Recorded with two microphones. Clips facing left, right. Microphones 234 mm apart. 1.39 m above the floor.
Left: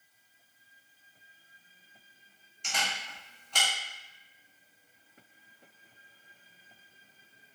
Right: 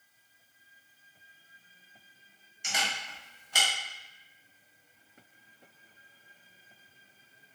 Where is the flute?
No flute in this recording.